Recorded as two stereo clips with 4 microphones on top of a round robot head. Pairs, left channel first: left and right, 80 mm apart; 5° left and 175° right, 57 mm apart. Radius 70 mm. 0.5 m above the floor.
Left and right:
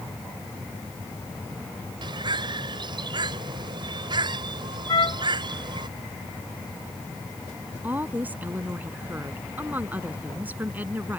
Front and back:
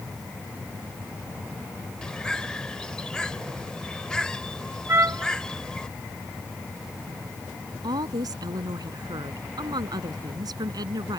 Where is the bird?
75° right.